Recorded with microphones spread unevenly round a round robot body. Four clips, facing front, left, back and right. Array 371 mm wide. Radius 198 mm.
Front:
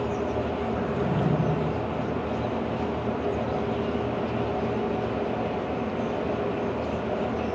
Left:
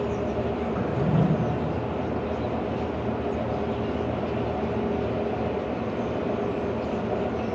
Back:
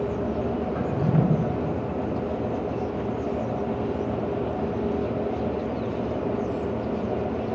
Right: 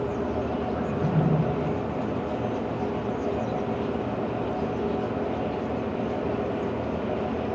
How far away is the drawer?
About 3 m.